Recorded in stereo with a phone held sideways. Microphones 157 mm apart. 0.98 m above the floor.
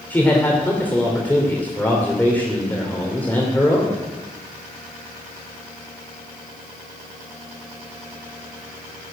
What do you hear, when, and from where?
0.1 s a man speaking: 10° left (ahead or behind), 2.5 m